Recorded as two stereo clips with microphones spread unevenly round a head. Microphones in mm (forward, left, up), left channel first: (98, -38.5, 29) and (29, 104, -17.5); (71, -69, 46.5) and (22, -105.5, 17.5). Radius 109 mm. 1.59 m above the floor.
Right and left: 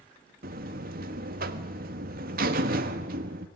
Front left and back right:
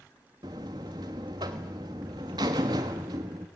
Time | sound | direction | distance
0.4 | a buzzer | 155° left | 1.1 m